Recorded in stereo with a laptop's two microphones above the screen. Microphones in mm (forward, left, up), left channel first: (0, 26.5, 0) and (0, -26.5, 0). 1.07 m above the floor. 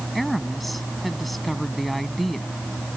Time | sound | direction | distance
0.1 | a woman speaking | centre (ahead or behind) | ?